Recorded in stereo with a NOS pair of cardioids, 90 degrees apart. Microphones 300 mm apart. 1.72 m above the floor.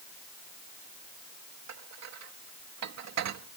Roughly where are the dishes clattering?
Ahead right.